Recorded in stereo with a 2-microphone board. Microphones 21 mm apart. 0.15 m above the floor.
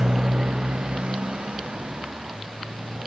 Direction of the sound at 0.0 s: 45° right (ahead or behind).